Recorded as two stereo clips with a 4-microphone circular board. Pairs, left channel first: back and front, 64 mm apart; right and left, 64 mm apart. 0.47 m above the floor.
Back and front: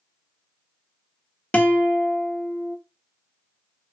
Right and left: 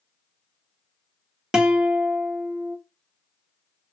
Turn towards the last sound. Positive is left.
turn(degrees=150)